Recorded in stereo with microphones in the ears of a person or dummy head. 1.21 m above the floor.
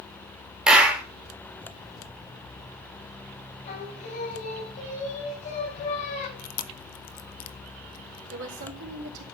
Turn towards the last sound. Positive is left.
turn(degrees=-65)  # may be behind; listen again after turning